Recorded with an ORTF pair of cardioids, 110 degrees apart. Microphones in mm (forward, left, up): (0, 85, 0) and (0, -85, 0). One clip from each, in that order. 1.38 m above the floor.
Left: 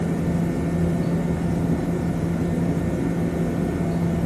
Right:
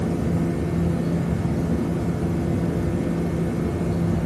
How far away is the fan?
About 1.7 m.